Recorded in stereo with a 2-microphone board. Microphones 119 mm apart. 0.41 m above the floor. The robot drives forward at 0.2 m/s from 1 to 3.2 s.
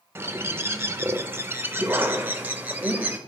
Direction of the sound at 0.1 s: 20° right (ahead or behind).